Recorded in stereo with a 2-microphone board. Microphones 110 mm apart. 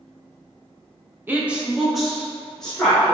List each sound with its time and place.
1.3 s a woman speaking: 20° right (ahead or behind), 0.6 m; by 3.1 s 10° left (ahead or behind), 2 m